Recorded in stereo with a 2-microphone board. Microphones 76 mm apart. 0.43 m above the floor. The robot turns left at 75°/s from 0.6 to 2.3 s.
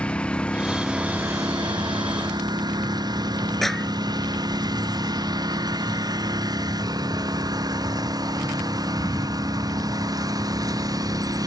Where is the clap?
5° left (ahead or behind).